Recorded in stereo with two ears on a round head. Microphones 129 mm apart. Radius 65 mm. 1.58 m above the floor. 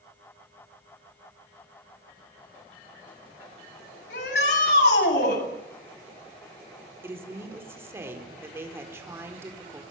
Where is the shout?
80° left, 8.5 m.